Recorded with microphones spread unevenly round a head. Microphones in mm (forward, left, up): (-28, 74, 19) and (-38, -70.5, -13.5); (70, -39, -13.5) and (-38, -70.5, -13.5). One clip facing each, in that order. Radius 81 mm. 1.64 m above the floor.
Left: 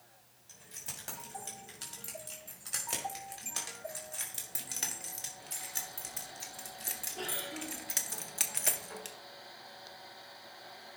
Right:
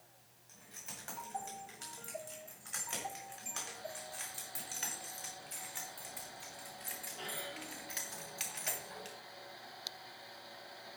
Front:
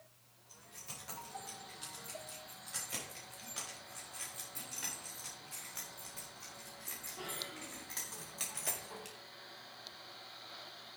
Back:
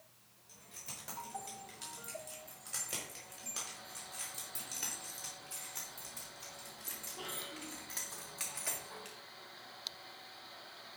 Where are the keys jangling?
135° left, 5.5 m; by 9.2 s 80° left, 1.3 m.